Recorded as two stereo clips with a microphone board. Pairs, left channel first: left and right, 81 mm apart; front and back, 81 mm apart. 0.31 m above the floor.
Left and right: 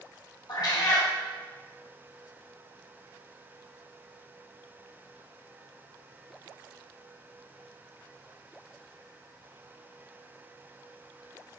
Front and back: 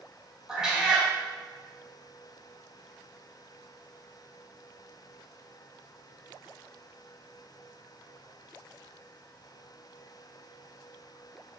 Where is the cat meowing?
95° left, 0.9 m.